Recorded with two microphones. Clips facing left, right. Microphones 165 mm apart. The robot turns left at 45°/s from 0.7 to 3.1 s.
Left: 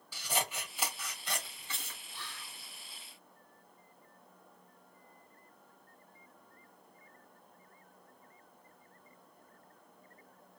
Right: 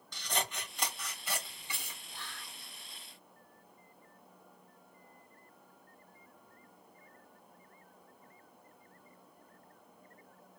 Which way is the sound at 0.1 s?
10° left (ahead or behind).